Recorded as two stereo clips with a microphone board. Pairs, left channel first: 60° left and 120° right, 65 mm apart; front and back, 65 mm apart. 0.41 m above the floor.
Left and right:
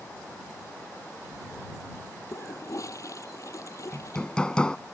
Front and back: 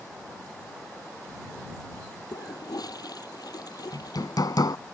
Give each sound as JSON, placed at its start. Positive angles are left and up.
{"t": 2.3, "sound": "a toilet flushing", "azimuth_deg": 20}
{"t": 3.9, "sound": "hammering", "azimuth_deg": -15}